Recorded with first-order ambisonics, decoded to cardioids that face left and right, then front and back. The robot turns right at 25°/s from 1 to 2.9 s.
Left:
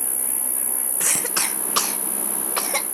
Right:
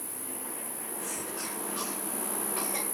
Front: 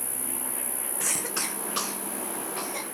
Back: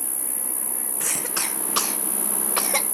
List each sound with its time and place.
0.0 s an insect: 110° left, 1.0 m; by 3.0 s 160° left, 1.0 m
1.0 s a cough: 95° left, 1.2 m; by 2.9 s 140° left, 1.2 m